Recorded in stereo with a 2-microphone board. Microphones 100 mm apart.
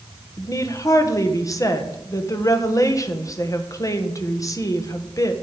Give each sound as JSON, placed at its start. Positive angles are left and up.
{"t": 0.4, "sound": "a woman speaking", "side_deg": 35, "distance_m": 1.3}